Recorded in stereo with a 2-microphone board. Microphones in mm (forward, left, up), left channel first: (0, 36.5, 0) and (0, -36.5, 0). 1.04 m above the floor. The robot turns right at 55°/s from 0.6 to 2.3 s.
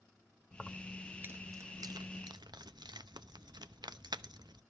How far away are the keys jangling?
About 0.7 m.